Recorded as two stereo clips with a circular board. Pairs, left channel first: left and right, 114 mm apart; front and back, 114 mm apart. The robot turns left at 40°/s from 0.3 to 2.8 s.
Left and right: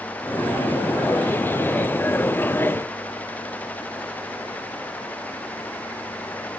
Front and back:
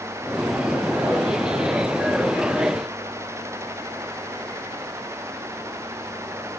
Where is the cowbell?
I don't hear a cowbell.